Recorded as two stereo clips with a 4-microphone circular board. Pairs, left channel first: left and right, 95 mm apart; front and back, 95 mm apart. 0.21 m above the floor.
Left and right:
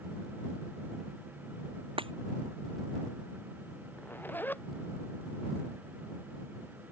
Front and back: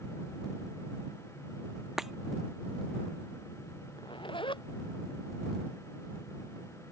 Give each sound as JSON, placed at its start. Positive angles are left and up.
{"t": 2.0, "sound": "breaking glass", "azimuth_deg": -95}
{"t": 4.0, "sound": "a zipper", "azimuth_deg": 20}